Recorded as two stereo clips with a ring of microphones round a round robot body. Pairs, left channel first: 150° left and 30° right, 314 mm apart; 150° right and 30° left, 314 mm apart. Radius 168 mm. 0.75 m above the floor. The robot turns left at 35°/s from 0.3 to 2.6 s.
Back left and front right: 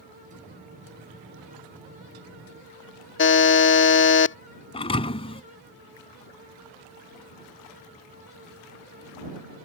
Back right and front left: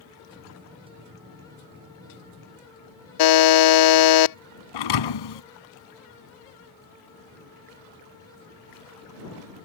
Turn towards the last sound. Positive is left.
turn(degrees=-135)